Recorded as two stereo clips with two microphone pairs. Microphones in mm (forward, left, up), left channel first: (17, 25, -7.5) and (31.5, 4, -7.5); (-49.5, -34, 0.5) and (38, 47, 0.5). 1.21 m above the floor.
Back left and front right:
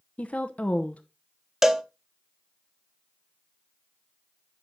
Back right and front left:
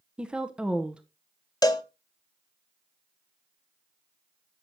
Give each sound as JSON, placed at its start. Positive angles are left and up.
{"t": 0.2, "sound": "a woman speaking", "azimuth_deg": 125, "distance_m": 0.7}
{"t": 1.6, "sound": "a cowbell", "azimuth_deg": -120, "distance_m": 0.8}